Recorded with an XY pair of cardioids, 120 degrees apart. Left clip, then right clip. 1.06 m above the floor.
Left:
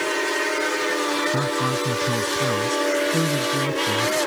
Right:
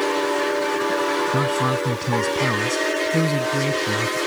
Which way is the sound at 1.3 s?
15° right.